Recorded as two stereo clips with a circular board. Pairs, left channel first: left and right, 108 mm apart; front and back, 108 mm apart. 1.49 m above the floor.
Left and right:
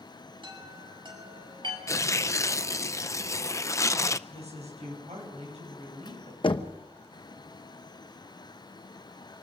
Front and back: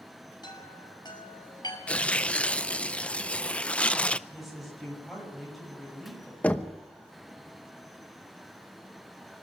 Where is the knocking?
75° left, 0.9 m.